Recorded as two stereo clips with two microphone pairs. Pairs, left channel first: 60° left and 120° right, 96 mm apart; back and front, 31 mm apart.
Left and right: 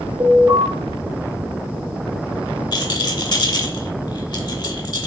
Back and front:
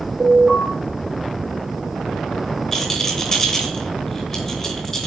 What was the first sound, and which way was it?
An alarm, 60° right.